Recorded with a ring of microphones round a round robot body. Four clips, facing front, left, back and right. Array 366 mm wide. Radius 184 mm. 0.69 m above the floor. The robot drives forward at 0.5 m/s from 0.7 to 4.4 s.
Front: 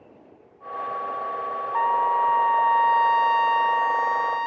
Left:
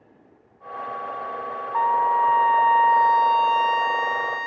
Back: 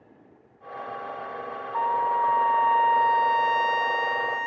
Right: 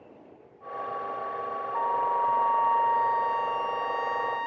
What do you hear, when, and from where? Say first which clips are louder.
1.7 s a trumpet: left 7 dB, front 2 dB; 70° left; by 4.5 s 130° left